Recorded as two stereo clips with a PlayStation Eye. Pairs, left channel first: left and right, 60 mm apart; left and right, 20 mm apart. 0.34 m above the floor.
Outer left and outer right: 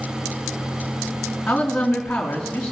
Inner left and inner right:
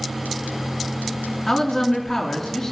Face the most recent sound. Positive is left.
turn(degrees=10)  # may be behind; listen again after turning